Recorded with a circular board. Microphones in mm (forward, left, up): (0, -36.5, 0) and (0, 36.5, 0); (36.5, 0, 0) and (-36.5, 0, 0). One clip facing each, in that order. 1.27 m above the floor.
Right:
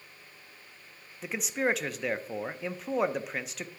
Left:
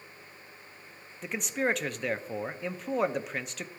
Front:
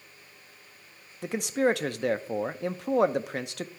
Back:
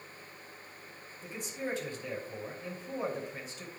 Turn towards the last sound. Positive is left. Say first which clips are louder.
# even, front 13 dB
turn(degrees=0)